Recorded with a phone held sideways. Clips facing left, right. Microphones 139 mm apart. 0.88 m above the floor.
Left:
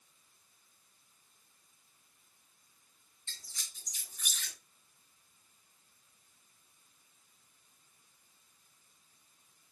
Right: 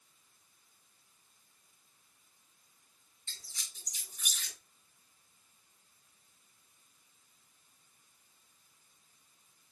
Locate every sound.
3.3 s a squeak: 5° right (ahead or behind), 5.5 m